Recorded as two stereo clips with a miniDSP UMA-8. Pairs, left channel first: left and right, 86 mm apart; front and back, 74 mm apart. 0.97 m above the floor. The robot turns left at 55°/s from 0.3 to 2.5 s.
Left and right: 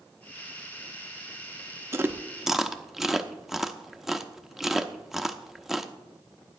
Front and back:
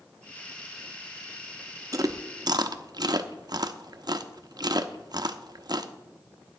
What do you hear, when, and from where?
1.9 s chewing: 145° right, 0.6 m; by 5.9 s 175° right, 0.6 m